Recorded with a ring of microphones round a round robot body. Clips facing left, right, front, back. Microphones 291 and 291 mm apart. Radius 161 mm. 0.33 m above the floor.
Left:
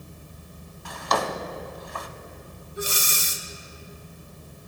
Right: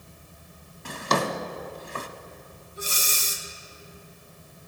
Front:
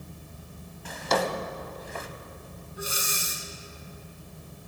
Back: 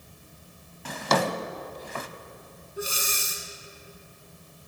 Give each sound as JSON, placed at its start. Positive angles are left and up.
{"t": 0.8, "sound": "a drawer", "azimuth_deg": -150, "distance_m": 0.6}
{"t": 2.8, "sound": "breathing", "azimuth_deg": 120, "distance_m": 0.9}